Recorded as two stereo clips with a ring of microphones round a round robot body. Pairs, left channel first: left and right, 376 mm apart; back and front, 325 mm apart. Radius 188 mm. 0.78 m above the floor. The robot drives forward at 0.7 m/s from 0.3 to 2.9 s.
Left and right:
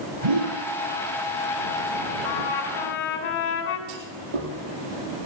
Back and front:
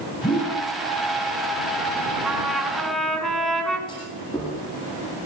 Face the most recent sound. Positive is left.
turn(degrees=-100)